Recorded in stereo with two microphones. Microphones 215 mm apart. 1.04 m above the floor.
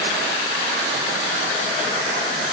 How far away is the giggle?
I don't hear a giggle.